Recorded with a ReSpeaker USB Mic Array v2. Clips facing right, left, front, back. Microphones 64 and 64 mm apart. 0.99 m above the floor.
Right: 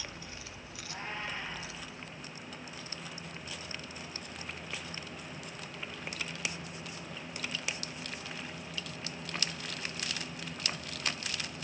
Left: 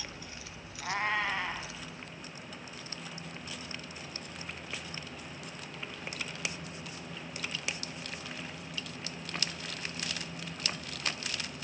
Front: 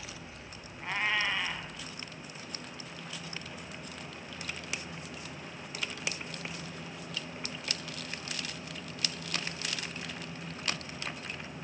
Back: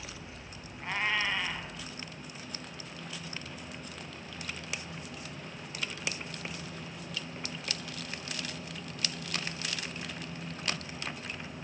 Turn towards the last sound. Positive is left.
turn(degrees=90)